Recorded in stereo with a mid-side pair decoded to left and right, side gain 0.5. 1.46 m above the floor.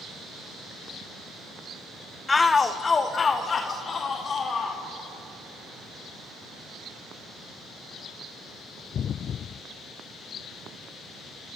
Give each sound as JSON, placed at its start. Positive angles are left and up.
{"t": 2.3, "sound": "a shout", "azimuth_deg": 25, "distance_m": 0.9}